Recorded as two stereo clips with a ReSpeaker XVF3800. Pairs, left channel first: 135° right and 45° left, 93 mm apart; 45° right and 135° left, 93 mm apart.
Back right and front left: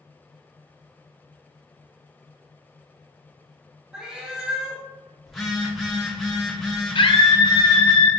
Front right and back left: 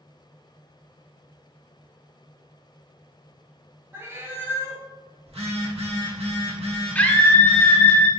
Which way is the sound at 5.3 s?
135° left.